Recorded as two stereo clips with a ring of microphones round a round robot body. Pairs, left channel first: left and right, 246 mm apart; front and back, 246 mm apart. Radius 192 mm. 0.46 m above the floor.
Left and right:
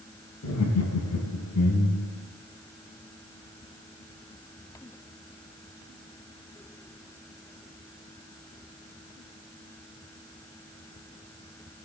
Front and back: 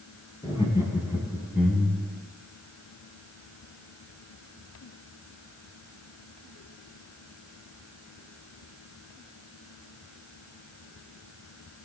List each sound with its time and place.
0.4 s laughter: 70° left, 3 m